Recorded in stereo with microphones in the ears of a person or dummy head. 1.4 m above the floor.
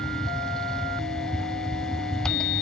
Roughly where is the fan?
Centre.